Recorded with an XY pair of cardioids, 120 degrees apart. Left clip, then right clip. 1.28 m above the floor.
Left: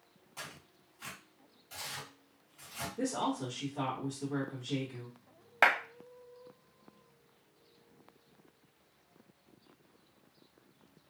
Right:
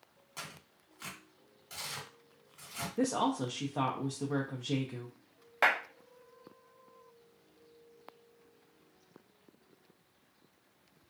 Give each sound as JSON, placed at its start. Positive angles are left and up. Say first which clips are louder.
{"t": 0.4, "sound": "tearing paper", "louder": "right 1 dB", "azimuth_deg": -50, "distance_m": 1.5}
{"t": 3.0, "sound": "a woman speaking", "louder": "right 3 dB", "azimuth_deg": -70, "distance_m": 0.6}
{"t": 5.6, "sound": "a clap", "louder": "left 2 dB", "azimuth_deg": 25, "distance_m": 1.0}